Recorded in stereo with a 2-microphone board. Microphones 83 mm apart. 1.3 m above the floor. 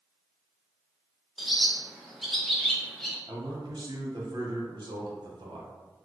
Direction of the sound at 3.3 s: 60° right (ahead or behind).